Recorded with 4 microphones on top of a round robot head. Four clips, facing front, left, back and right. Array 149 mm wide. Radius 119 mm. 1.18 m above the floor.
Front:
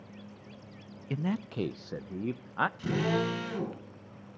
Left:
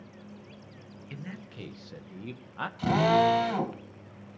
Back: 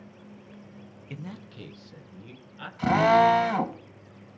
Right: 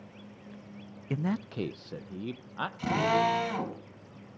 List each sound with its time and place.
1.1 s a man speaking: 65° right, 0.5 m; by 2.7 s 10° right, 1.0 m
2.8 s a drill: 165° left, 3.5 m